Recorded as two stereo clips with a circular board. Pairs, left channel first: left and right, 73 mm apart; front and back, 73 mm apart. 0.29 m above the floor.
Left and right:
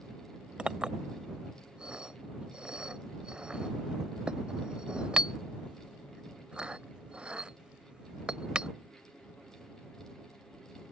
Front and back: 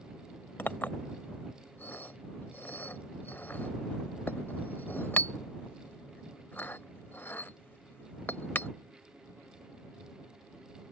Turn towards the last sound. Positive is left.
turn(degrees=-30)